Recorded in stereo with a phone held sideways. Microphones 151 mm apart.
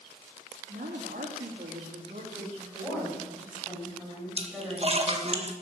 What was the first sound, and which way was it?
A woman speaking, 75° right (ahead or behind).